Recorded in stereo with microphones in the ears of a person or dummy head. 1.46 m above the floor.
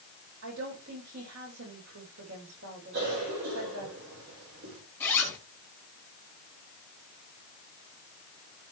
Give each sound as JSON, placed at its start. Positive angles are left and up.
{"t": 0.4, "sound": "a woman speaking", "side_deg": -65, "distance_m": 7.0}
{"t": 2.9, "sound": "a cough", "side_deg": -60, "distance_m": 6.0}
{"t": 5.0, "sound": "a zipper", "side_deg": 10, "distance_m": 4.5}